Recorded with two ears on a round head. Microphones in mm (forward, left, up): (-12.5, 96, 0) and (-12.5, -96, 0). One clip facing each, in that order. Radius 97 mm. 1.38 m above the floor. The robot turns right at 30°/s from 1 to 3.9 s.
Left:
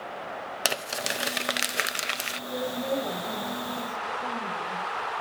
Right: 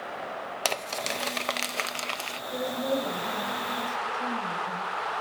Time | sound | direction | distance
0.7 | crumpling | 10° left (ahead or behind) | 0.6 m
2.5 | a woman speaking | 170° left | 7 m